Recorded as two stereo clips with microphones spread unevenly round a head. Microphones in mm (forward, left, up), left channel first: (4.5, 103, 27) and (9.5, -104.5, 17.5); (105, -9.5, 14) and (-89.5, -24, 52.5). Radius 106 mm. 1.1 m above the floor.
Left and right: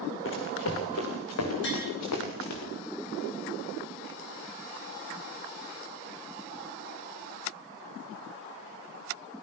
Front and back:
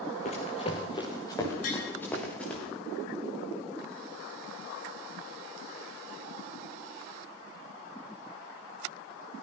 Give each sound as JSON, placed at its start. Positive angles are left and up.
{"t": 0.2, "sound": "running footsteps", "azimuth_deg": 65, "distance_m": 4.0}
{"t": 1.6, "sound": "tapping", "azimuth_deg": 55, "distance_m": 9.5}